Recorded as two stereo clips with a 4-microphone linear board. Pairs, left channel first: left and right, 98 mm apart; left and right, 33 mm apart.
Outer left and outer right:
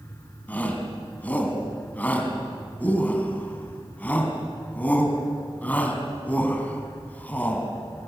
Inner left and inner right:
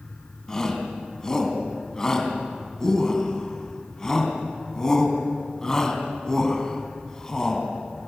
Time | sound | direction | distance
0.5 | a shout | 15° left (ahead or behind) | 3.5 m